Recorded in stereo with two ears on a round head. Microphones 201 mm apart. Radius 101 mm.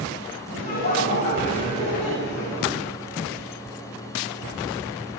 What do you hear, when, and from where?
0.5 s laughter: 40° left (ahead or behind), 8 m; by 2.8 s 10° left (ahead or behind), 7 m